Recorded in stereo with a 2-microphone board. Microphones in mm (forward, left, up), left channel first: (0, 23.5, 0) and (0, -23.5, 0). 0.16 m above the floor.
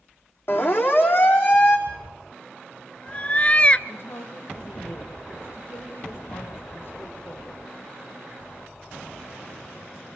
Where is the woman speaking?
55° left (ahead or behind), 5.5 m.